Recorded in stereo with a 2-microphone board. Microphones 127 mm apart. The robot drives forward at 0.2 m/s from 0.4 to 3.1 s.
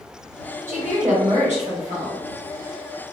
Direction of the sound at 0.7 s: 70° right (ahead or behind).